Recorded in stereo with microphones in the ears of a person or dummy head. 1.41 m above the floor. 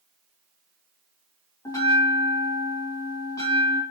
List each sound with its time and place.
1.6 s a bell: 10° left (ahead or behind), 0.9 m